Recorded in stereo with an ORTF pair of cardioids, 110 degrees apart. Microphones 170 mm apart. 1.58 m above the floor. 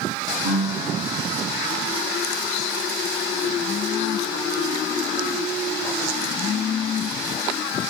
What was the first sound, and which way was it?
A piano, 60° right.